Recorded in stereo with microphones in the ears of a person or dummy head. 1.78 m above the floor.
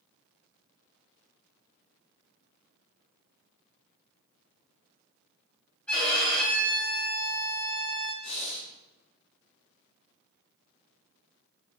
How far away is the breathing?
About 1.1 m.